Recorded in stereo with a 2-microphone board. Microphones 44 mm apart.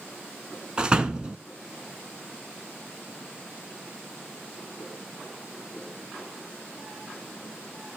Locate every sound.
0.8 s a door slam: 20° right (ahead or behind), 0.8 m